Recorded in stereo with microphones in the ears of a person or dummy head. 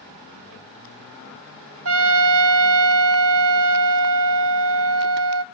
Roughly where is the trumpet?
Right.